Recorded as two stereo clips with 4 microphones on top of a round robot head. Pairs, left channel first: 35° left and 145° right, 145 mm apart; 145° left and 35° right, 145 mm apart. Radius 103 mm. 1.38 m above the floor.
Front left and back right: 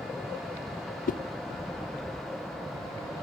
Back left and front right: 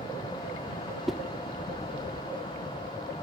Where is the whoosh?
55° left, 0.7 m.